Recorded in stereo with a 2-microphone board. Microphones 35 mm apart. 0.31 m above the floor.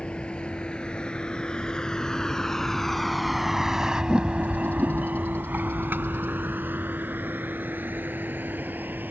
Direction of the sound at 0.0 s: 30° left (ahead or behind).